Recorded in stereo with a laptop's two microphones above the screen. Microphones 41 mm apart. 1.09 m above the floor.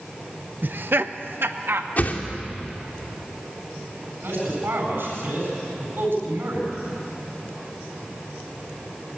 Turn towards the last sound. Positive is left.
turn(degrees=-70)  # may be behind; listen again after turning